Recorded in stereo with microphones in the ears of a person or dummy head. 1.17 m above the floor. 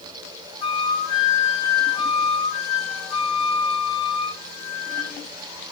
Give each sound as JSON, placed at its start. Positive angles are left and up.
{"t": 0.6, "sound": "a flute", "side_deg": 35, "distance_m": 3.0}